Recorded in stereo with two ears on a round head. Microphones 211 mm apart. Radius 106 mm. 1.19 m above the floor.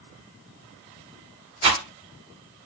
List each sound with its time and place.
1.6 s a rattle: 25° right (ahead or behind), 1.1 m